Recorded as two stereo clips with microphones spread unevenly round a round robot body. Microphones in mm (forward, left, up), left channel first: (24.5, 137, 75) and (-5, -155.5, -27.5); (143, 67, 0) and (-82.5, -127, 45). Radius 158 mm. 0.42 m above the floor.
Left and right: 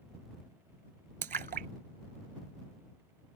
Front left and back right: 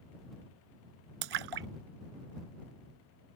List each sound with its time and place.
1.2 s a splash: 160° right